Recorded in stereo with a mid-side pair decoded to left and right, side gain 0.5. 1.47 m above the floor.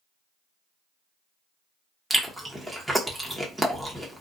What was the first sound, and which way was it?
Chewing, 5° right.